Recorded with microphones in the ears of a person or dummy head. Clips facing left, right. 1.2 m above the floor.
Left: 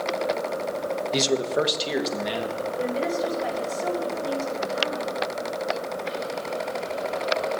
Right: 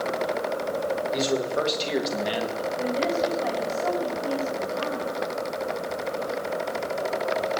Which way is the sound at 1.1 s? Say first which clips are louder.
Left 4 dB; 50° left (ahead or behind).